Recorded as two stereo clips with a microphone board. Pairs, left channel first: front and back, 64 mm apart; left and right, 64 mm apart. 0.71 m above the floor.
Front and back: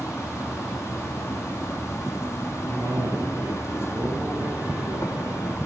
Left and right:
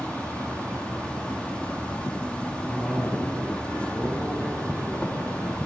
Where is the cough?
135° left, 8.5 m.